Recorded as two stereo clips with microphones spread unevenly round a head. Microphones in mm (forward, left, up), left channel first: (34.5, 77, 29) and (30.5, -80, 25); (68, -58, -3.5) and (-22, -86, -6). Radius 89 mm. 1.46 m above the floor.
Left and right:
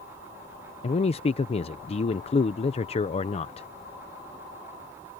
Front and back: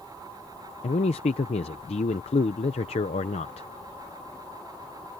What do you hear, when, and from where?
0.8 s a man speaking: 35° left